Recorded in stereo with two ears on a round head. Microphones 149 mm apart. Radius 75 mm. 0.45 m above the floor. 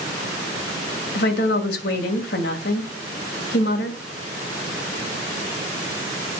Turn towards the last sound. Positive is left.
turn(degrees=65)  # may be behind; listen again after turning